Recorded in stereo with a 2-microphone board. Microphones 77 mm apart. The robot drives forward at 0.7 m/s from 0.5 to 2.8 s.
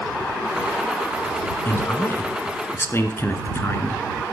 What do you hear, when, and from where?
1.6 s a man speaking: 30° left (ahead or behind), 1.6 m; by 4.0 s 35° left (ahead or behind), 1.4 m